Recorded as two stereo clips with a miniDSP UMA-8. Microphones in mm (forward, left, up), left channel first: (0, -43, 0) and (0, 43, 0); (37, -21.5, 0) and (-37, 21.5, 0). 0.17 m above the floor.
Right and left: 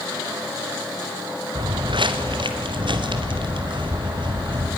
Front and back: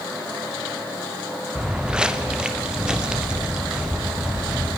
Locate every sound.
1.6 s footsteps: 70° left, 1.6 m